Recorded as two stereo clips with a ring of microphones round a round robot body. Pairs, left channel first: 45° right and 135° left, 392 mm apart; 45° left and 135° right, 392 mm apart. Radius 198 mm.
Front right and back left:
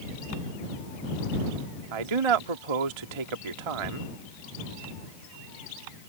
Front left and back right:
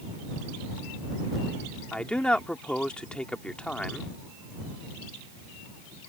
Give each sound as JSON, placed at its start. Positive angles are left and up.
{"t": 1.9, "sound": "a man speaking", "azimuth_deg": 135}